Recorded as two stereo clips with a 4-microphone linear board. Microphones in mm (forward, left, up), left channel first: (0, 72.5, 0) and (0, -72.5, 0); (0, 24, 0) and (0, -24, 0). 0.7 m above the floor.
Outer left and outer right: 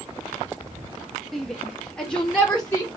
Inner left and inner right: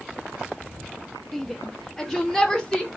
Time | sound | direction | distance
1.3 | a shout | centre (ahead or behind) | 1.2 m